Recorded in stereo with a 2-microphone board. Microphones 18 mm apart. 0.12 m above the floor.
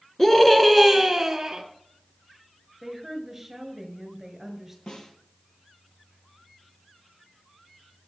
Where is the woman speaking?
20° right (ahead or behind), 1.7 m.